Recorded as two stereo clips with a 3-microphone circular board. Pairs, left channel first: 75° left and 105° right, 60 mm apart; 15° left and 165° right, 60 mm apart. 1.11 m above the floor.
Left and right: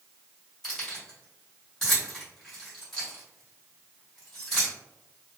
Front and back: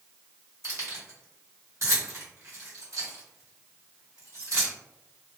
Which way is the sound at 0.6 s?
160° left.